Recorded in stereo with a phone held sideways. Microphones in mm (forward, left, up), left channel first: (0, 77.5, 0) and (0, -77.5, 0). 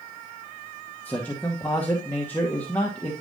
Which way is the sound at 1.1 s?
10° left (ahead or behind).